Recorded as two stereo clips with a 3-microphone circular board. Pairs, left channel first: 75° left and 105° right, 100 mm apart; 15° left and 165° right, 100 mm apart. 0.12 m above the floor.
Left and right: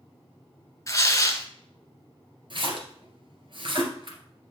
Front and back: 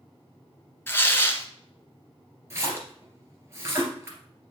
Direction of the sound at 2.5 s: 110° right.